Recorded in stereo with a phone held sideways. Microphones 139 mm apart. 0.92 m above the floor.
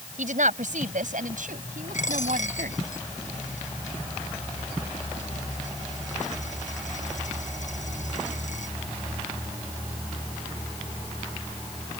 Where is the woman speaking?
65° right (ahead or behind); by 2.8 s 75° right (ahead or behind).